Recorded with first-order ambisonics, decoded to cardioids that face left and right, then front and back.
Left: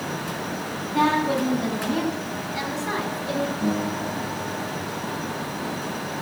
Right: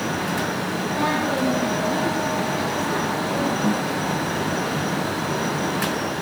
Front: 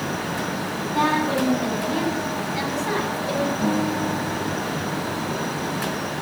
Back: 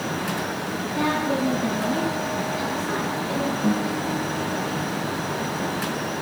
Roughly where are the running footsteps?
I don't hear running footsteps.